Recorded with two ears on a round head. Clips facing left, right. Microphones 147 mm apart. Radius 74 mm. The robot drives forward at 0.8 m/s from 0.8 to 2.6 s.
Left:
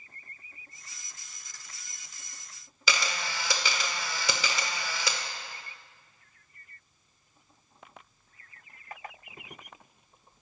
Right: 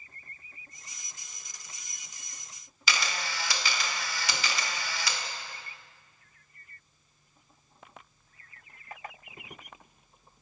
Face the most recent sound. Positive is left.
turn(degrees=75)  # may be behind; listen again after turning